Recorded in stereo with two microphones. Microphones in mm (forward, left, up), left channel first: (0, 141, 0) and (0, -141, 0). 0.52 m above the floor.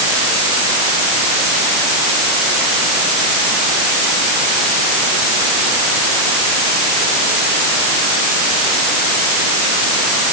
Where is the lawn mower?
No lawn mower in this recording.